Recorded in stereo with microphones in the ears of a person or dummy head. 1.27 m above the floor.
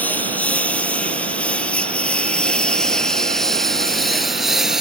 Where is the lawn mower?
5° left (ahead or behind); by 4.8 s centre (ahead or behind).